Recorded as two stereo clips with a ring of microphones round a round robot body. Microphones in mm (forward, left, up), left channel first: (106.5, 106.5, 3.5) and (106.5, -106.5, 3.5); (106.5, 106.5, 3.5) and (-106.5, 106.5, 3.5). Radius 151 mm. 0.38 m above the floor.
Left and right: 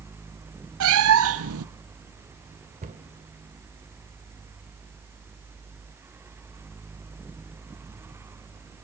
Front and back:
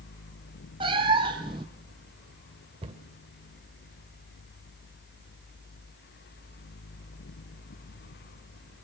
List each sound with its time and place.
0.8 s a cat meowing: 105° right, 1.0 m
2.8 s a cupboard door: 130° right, 1.7 m